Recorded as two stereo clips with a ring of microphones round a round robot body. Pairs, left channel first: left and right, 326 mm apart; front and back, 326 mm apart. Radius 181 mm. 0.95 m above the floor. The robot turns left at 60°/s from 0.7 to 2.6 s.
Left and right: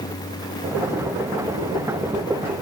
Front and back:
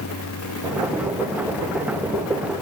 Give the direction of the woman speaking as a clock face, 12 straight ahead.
I don't hear a woman speaking.